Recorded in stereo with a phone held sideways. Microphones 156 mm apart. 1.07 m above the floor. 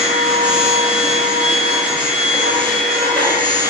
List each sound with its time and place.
0.0 s a machine running: 60° right (ahead or behind), 1.7 m